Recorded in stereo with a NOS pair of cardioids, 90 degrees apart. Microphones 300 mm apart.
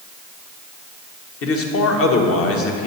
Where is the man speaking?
50° left, 1.1 m.